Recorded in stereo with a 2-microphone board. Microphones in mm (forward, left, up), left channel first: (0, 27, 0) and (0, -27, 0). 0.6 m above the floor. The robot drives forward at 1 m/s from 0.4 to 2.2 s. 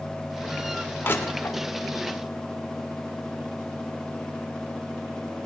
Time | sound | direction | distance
1.0 | crushing | 50° left (ahead or behind) | 1.5 m